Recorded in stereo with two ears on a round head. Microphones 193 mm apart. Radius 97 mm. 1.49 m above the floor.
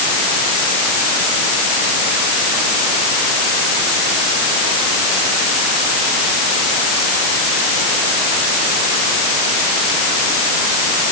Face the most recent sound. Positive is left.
No sound to turn to.